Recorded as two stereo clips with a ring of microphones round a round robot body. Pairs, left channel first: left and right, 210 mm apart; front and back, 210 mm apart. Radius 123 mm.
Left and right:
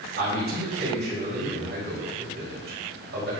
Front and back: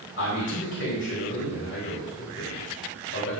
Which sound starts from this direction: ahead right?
A man speaking, at 0.2 s.